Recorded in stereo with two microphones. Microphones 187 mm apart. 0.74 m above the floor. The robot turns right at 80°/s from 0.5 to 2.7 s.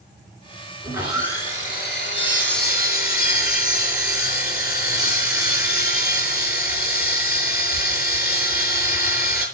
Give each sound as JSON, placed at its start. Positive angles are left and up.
{"t": 0.8, "sound": "sawing", "azimuth_deg": -20, "distance_m": 6.5}